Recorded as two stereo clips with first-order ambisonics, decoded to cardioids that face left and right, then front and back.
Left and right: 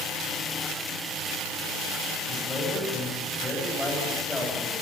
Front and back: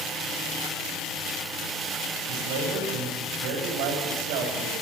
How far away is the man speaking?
About 8 m.